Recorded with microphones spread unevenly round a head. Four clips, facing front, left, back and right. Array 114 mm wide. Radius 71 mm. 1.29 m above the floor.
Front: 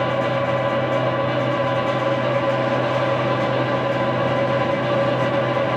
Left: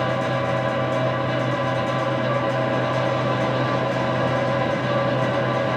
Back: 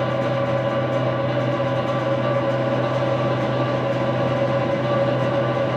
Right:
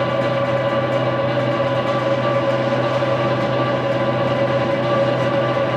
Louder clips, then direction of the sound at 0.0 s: Right 4 dB, front 1 dB; 90° right.